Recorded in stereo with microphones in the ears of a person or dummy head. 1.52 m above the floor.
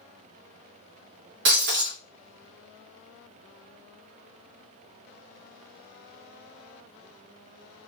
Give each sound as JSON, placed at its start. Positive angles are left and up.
{"t": 1.4, "sound": "breaking glass", "side_deg": -50, "distance_m": 1.4}